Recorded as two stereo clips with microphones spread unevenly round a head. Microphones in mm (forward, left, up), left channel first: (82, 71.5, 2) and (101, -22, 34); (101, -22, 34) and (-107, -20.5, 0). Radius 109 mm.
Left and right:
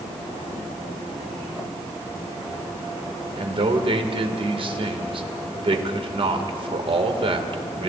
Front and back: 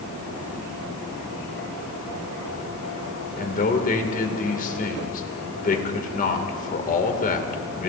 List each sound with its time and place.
3.4 s a man speaking: 50° right, 2 m